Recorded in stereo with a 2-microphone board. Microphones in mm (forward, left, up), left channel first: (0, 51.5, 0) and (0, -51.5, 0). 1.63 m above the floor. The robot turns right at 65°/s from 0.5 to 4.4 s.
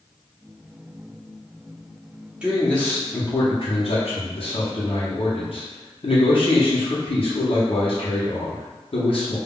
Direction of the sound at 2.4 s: 10° right.